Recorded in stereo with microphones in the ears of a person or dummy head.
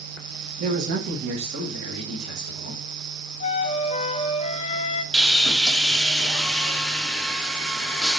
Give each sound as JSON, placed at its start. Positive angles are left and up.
{"t": 0.6, "sound": "a man speaking", "side_deg": -50, "distance_m": 1.0}
{"t": 3.4, "sound": "a flute", "side_deg": 35, "distance_m": 0.7}
{"t": 5.1, "sound": "sawing", "side_deg": 5, "distance_m": 0.9}